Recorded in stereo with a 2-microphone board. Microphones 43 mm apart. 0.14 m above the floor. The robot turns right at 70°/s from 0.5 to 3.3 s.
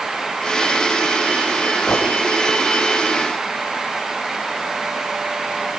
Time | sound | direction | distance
1.9 | a gunshot | 15° left (ahead or behind) | 6 m